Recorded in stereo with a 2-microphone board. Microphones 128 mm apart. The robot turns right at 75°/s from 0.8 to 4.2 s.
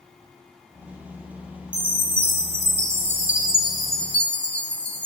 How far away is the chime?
About 0.7 m.